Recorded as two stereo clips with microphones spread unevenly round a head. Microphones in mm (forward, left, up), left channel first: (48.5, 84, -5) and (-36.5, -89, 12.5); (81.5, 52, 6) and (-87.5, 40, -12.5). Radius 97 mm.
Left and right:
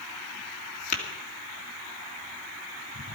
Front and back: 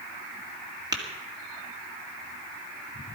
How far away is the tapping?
About 2 m.